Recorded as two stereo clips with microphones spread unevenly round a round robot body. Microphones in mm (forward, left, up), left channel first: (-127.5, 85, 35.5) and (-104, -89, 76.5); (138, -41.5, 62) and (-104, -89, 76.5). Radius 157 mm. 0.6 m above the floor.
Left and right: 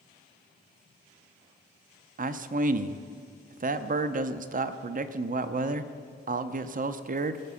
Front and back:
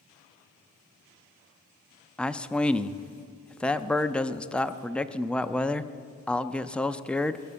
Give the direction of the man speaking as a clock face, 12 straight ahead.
2 o'clock.